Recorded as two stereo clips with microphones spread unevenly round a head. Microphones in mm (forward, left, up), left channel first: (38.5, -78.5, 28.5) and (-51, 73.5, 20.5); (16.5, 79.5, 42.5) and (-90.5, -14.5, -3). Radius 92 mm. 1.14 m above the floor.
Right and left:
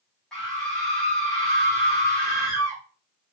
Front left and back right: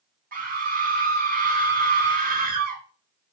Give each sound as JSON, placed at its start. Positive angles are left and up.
{"t": 0.3, "sound": "a scream", "azimuth_deg": -145, "distance_m": 3.0}